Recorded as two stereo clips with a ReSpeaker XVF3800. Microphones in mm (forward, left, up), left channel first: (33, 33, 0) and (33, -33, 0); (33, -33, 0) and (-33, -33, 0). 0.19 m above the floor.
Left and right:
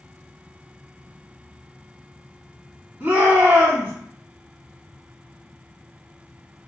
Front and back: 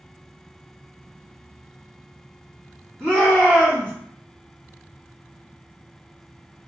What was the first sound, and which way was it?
A shout, 55° right.